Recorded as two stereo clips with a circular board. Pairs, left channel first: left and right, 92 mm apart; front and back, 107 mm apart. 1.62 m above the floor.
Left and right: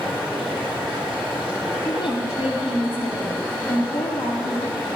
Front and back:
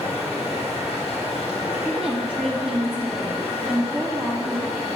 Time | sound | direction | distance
0.0 | running water | straight ahead | 6 m
1.9 | a woman speaking | 80° left | 3.5 m